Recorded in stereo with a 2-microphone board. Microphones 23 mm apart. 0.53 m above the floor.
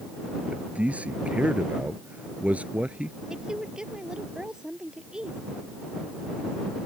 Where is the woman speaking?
30° right (ahead or behind).